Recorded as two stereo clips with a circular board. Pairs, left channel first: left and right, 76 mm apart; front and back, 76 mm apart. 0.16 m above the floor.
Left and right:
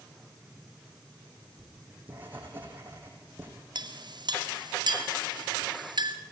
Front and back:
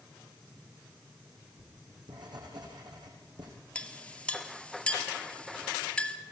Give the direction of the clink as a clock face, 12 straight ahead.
3 o'clock.